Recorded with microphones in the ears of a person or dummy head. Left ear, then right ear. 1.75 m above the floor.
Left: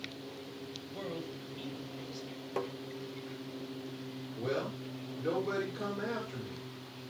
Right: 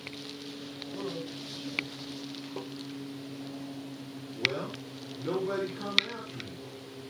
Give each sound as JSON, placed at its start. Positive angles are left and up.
{"t": 0.9, "sound": "a man speaking", "side_deg": 25, "distance_m": 9.5}
{"t": 2.6, "sound": "tapping", "side_deg": 45, "distance_m": 0.8}
{"t": 4.4, "sound": "a man speaking", "side_deg": 40, "distance_m": 7.0}